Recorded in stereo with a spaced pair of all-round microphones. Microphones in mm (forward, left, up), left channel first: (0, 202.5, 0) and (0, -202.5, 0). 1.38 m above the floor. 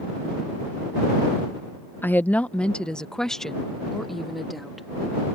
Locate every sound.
2.0 s a woman speaking: 5° left (ahead or behind); by 4.9 s centre (ahead or behind)